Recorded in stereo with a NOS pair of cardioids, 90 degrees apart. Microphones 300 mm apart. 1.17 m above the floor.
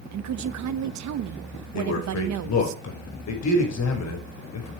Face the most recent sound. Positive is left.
turn(degrees=60)